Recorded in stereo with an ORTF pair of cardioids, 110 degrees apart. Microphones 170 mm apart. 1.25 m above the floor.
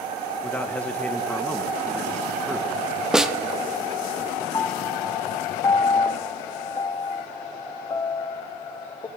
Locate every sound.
0.4 s a man speaking: 10° left, 1.4 m
3.1 s a snare drum: 5° right, 0.9 m
4.5 s a piano: 20° left, 0.6 m